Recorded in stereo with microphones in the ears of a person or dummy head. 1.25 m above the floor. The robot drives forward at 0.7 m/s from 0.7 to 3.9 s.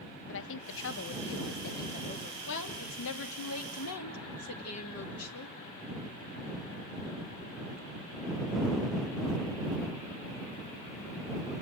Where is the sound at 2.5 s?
70° left (ahead or behind), 2.5 m; by 5.5 s 80° left, 2.5 m.